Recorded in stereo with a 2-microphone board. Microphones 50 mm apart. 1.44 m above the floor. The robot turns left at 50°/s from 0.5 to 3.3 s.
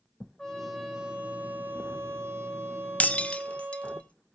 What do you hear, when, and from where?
0.4 s a trumpet: 10° left, 2 m; by 4.0 s 130° right, 2 m
3.0 s breaking glass: 30° left (ahead or behind), 0.9 m; by 4.3 s 25° left (ahead or behind), 0.9 m